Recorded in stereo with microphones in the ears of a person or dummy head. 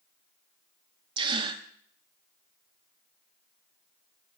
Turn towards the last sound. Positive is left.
turn(degrees=-30)  # may be behind; listen again after turning